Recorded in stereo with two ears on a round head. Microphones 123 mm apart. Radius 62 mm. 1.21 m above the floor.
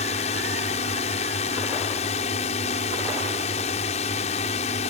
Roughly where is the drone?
Left.